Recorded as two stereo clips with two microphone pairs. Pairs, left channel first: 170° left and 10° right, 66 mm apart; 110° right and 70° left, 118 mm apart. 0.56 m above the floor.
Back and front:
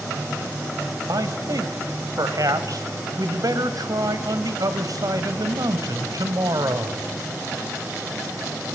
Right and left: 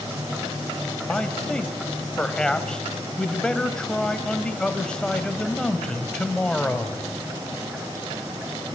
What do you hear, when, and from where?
1.1 s a man speaking: 25° right, 2.5 m